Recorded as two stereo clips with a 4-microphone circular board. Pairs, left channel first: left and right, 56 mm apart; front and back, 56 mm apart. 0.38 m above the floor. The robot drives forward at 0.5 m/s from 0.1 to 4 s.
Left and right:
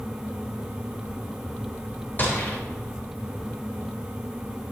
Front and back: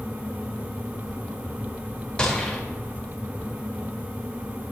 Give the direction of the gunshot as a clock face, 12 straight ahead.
10 o'clock.